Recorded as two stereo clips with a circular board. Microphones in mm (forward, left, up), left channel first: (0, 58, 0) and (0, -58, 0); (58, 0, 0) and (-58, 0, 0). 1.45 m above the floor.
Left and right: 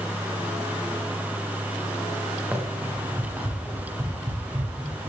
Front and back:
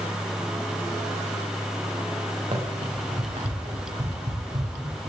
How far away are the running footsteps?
About 6.5 m.